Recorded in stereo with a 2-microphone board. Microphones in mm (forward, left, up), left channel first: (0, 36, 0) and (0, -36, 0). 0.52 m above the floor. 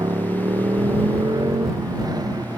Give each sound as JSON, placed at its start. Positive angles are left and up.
{"t": 0.0, "sound": "a motorcycle", "side_deg": -60}